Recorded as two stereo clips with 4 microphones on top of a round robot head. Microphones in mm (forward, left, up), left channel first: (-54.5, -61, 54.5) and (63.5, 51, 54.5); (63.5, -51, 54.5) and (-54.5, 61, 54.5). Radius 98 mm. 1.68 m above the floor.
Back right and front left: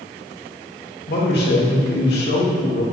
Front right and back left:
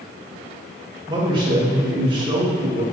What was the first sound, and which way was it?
A man speaking, 160° right.